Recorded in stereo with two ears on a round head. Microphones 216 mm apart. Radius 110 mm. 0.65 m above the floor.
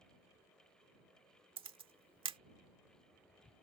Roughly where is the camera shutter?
Right.